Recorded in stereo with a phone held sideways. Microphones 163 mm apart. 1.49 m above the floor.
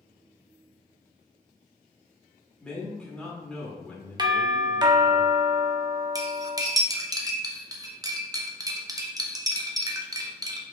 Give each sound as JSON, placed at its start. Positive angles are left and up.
{"t": 2.6, "sound": "a man speaking", "side_deg": 5, "distance_m": 1.3}
{"t": 4.2, "sound": "a doorbell", "side_deg": -25, "distance_m": 0.7}
{"t": 6.2, "sound": "cutlery clinking", "side_deg": -20, "distance_m": 0.6}